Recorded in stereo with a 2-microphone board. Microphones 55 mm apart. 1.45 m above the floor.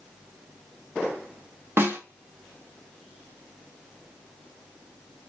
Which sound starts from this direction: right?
A snare drum, at 1.8 s.